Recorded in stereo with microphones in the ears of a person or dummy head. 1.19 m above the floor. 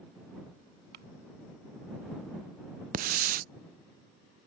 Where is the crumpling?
60° right (ahead or behind).